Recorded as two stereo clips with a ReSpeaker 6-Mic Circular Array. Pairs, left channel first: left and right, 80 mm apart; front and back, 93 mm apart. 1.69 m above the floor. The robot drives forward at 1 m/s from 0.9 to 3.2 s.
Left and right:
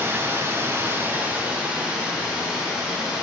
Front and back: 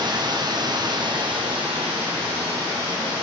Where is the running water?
150° right, 0.9 m; by 3.2 s 170° right, 3 m.